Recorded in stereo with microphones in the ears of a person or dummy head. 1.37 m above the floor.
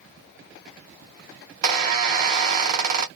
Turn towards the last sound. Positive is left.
turn(degrees=-45)  # may be behind; listen again after turning